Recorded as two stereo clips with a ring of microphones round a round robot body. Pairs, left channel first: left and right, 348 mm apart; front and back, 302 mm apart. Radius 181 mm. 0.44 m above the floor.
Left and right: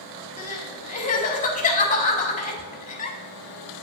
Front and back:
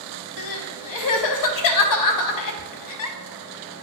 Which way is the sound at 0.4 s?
20° left.